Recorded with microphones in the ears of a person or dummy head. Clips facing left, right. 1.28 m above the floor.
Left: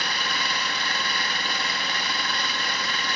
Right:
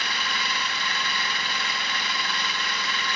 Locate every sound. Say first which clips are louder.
0.0 s an engine running: left 2 dB; 35° left (ahead or behind), 0.8 m